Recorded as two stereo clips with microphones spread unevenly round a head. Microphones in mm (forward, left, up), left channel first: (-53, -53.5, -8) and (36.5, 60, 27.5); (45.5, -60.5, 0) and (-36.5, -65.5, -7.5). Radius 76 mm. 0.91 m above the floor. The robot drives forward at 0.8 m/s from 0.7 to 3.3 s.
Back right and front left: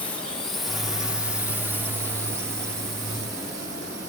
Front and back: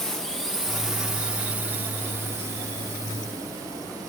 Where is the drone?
80° right; by 4.1 s 125° left.